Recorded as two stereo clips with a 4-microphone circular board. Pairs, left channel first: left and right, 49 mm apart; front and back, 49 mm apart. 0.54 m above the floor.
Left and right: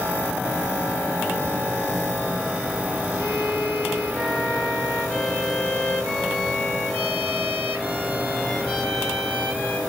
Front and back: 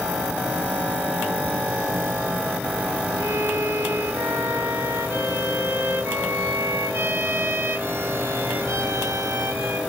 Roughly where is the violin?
Behind left.